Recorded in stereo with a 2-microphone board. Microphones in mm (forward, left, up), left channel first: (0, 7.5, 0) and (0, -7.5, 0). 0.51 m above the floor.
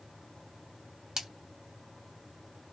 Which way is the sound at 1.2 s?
50° right (ahead or behind).